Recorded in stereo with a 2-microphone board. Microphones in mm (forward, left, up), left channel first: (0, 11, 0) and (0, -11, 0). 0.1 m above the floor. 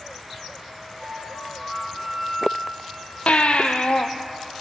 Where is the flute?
15° left (ahead or behind), 4 m.